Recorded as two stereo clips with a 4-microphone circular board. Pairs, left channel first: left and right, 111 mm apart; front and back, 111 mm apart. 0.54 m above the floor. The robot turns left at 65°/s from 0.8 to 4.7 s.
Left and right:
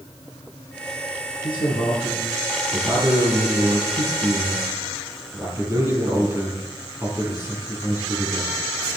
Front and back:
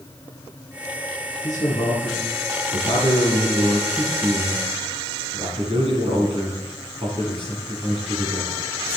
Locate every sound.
1.4 s a man speaking: 65° left, 6 m; by 8.6 s 150° right, 6 m